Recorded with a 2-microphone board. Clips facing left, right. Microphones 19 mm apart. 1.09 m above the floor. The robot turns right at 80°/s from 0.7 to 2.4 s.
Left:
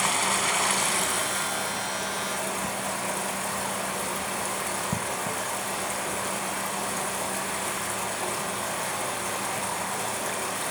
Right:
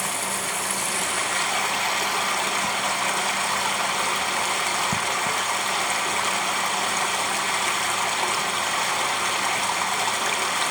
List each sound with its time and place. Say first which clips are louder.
0.0 s running water: left 2 dB; 160° left, 1.5 m; by 10.7 s 65° right, 1.5 m